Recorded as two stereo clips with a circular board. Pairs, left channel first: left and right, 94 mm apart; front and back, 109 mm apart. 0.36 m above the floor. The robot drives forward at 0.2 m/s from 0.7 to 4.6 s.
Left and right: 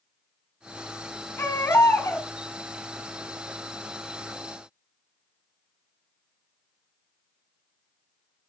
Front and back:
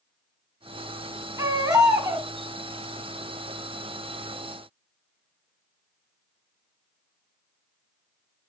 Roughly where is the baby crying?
Behind left.